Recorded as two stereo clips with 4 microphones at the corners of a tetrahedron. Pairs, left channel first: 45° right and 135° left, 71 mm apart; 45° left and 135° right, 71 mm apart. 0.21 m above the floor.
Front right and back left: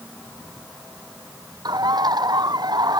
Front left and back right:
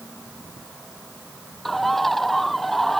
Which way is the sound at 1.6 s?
130° left.